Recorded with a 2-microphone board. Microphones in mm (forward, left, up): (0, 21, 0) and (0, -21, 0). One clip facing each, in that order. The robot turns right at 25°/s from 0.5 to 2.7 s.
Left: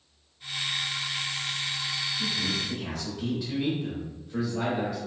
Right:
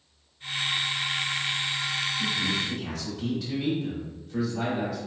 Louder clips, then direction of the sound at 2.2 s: Right 2 dB; 5° left (ahead or behind).